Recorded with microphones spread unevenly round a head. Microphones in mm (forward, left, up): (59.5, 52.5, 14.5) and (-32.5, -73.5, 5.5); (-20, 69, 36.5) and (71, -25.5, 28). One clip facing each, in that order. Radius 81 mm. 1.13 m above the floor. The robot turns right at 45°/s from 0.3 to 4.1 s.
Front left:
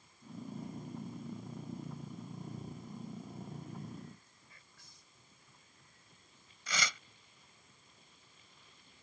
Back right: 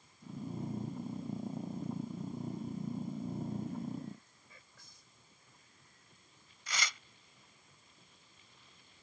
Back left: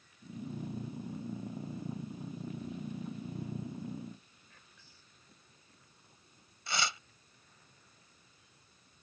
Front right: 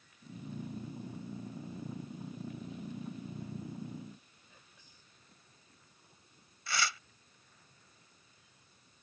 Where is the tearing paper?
65° left.